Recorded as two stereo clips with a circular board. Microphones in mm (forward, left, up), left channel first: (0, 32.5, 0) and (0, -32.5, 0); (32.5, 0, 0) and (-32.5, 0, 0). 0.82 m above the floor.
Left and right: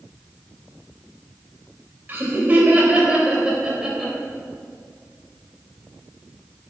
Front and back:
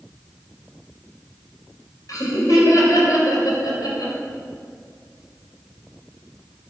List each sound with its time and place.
2.1 s laughter: 30° right, 4 m; by 4.1 s 5° right, 4 m